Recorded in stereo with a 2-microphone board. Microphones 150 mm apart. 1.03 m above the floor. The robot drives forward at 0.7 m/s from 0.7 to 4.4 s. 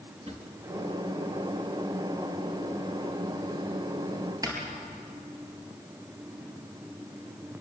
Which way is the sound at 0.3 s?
40° right (ahead or behind).